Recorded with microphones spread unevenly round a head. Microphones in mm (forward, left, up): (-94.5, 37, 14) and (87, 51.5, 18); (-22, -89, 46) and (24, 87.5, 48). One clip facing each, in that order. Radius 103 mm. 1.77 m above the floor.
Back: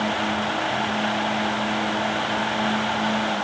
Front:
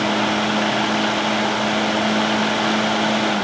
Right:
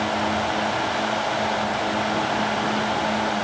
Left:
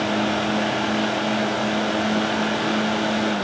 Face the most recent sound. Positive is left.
No sound to turn to.